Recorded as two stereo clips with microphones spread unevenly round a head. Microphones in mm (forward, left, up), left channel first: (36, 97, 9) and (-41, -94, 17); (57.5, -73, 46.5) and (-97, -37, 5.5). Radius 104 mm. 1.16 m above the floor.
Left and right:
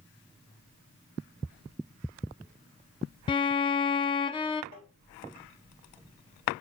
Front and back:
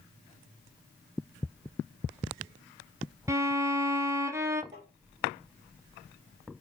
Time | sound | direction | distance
3.3 | a violin | 120° left | 0.7 m
4.7 | tapping | 90° left | 5 m